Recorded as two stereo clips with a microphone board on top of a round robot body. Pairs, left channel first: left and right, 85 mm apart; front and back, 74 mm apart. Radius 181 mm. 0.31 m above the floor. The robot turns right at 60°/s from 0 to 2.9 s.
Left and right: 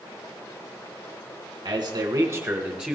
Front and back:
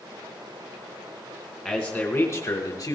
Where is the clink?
No clink in this recording.